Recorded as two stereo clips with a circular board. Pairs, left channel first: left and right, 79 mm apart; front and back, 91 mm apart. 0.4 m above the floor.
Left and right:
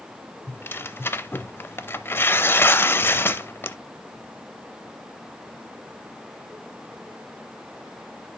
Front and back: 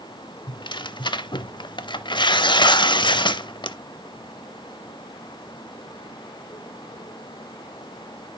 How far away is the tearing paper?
About 0.6 m.